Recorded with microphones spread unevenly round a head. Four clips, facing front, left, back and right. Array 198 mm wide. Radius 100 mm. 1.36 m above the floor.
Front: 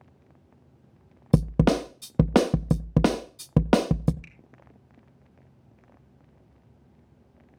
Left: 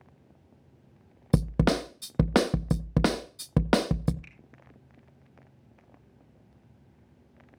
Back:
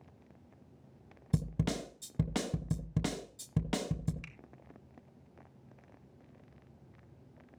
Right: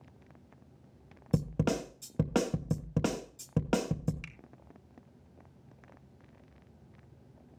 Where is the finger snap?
95° right, 4 m.